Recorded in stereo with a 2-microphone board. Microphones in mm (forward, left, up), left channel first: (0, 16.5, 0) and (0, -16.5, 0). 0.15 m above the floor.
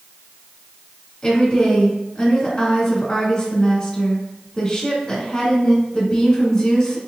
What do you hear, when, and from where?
1.2 s a woman speaking: 20° left (ahead or behind), 1.4 m